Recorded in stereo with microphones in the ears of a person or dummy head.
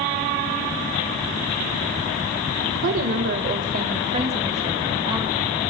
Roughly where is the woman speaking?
Right.